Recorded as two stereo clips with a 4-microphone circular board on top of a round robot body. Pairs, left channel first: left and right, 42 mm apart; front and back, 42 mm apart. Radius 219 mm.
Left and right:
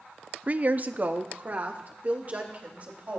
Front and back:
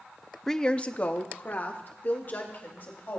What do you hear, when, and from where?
0.5 s a woman speaking: 75° right, 0.8 m; by 3.2 s 40° right, 4 m